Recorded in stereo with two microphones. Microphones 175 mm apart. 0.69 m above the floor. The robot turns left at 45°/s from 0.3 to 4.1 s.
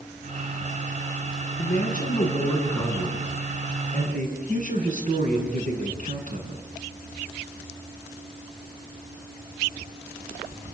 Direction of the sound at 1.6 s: 65° left.